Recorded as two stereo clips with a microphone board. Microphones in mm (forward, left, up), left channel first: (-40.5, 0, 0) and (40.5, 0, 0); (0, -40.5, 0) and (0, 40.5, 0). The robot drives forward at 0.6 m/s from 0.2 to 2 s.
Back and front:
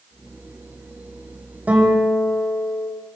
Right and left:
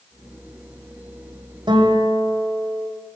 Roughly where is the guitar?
Left.